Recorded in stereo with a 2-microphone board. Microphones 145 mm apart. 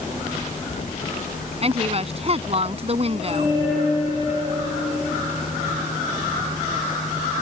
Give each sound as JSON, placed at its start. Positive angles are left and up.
{"t": 1.6, "sound": "a woman speaking", "side_deg": -45}